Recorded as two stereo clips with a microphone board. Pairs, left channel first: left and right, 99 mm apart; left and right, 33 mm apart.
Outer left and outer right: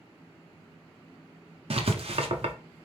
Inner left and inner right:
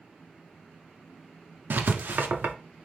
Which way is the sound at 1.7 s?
70° right (ahead or behind).